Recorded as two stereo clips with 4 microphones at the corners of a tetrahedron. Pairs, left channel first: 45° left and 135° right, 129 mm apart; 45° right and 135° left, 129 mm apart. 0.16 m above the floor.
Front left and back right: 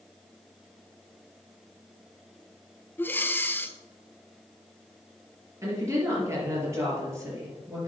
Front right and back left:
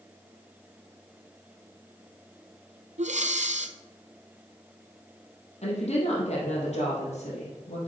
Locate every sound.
3.0 s breathing: 120° left, 0.6 m
5.6 s a woman speaking: 70° right, 4.5 m